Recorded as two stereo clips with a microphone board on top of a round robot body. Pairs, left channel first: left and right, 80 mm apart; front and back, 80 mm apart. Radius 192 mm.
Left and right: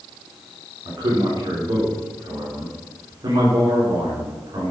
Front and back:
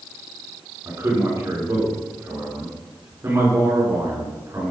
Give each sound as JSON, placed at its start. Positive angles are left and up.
{"t": 0.8, "sound": "a man speaking", "azimuth_deg": -125, "distance_m": 4.0}